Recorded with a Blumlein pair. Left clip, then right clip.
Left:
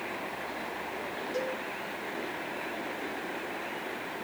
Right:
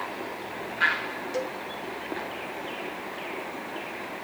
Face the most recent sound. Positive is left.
turn(degrees=-60)